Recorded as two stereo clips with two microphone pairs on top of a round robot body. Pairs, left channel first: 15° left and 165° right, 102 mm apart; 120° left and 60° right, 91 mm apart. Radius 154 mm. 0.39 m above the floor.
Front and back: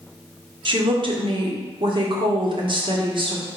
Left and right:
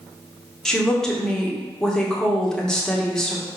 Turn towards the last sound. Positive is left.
turn(degrees=-160)